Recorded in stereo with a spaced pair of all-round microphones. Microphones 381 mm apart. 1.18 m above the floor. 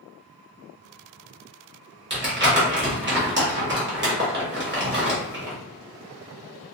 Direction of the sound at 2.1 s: 30° right (ahead or behind).